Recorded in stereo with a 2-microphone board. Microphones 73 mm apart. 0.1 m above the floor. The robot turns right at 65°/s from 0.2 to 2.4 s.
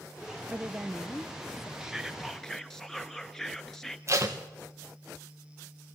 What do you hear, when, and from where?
0.5 s a woman speaking: 25° right, 1.7 m; by 1.7 s 55° left, 1.7 m
1.8 s whispering: 10° right (ahead or behind), 1.3 m; by 4.0 s 5° left (ahead or behind), 1.3 m
4.1 s tape being pulled: 40° right (ahead or behind), 3 m